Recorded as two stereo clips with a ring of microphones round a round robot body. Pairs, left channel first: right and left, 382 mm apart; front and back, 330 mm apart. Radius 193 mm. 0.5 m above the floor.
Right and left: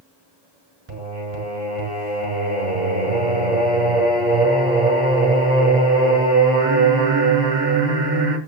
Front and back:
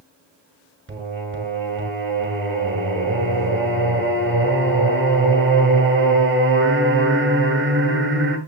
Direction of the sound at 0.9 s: 125° left.